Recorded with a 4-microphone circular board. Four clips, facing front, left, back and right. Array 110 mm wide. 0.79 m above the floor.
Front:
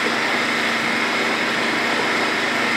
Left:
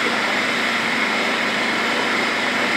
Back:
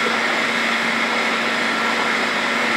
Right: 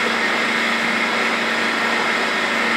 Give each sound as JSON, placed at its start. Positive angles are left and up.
{"t": 0.0, "sound": "an engine running", "azimuth_deg": -130, "distance_m": 6.0}